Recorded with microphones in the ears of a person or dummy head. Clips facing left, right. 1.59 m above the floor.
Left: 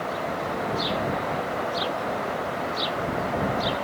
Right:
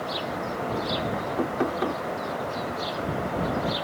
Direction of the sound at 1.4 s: 60° right (ahead or behind).